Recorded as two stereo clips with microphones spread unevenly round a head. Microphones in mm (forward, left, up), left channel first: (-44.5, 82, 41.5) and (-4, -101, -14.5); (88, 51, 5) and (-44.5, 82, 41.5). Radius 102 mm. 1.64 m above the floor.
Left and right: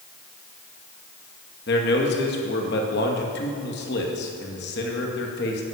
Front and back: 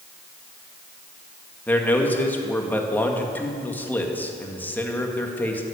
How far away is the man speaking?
About 2 m.